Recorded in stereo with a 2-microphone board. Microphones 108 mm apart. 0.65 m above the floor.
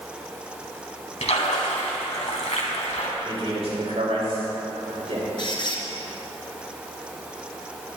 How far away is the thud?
I don't hear a thud.